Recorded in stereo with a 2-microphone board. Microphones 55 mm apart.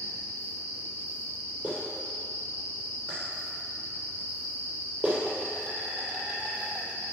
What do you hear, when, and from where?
0.0 s an insect: 30° right (ahead or behind), 2 m
1.6 s a clap: 25° right (ahead or behind), 2.5 m